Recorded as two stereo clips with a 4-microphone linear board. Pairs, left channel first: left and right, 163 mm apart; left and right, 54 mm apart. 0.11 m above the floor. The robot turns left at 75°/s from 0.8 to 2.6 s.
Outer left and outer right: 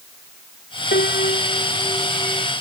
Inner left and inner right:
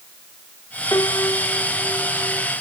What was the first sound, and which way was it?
A piano, 90° left.